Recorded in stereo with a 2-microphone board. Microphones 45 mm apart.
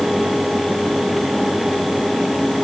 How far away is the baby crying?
I don't hear a baby crying.